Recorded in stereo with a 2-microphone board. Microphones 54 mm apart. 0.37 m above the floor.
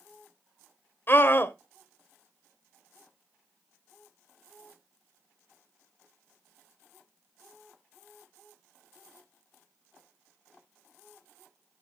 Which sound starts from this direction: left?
A scream, at 1.1 s.